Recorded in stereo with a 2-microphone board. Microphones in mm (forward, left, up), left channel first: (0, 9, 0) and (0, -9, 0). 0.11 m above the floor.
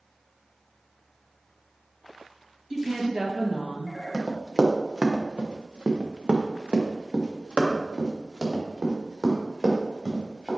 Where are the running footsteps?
40° right (ahead or behind), 2 m.